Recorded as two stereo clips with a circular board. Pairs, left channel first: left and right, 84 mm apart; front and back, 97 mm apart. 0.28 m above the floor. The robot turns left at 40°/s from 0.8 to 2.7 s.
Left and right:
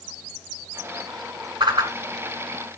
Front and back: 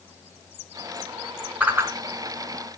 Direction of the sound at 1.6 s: 105° right.